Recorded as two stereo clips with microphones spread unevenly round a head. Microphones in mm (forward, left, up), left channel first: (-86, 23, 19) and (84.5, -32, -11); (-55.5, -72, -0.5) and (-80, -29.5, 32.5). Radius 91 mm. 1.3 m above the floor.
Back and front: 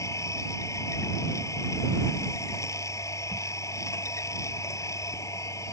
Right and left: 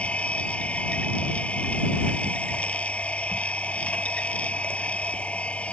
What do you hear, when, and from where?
0.0 s a machine running: 125° right